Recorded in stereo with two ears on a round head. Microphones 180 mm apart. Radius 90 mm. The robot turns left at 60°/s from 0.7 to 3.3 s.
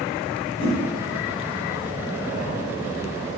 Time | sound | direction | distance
0.6 | a whoosh | 35° right (ahead or behind) | 1.2 m